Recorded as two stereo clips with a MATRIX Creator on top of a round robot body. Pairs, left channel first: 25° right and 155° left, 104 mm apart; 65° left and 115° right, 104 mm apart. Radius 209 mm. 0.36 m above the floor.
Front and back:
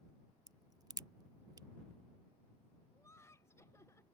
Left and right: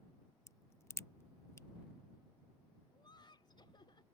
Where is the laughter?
35° left.